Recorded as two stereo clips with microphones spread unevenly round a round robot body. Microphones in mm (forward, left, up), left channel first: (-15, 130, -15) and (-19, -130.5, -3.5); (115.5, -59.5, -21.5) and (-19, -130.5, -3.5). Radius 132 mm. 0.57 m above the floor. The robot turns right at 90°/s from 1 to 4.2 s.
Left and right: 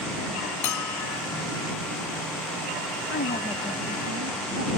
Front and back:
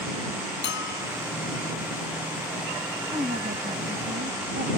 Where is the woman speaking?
130° left; by 4.8 s 130° right.